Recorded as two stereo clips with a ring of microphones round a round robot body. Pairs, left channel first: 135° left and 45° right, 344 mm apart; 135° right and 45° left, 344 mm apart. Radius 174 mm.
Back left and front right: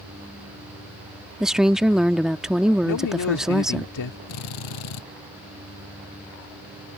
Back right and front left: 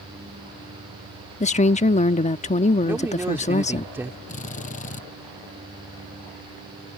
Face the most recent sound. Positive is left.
turn(degrees=155)